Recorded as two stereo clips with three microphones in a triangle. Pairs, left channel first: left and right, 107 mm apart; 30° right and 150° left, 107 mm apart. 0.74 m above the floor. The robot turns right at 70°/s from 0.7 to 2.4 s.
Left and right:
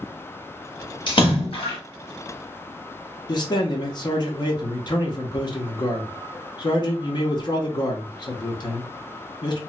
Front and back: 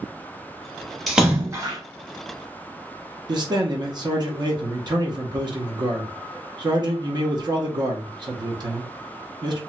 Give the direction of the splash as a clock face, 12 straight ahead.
10 o'clock.